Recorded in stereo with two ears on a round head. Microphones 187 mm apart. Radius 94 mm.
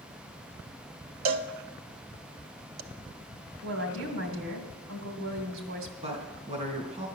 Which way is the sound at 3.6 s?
70° right (ahead or behind).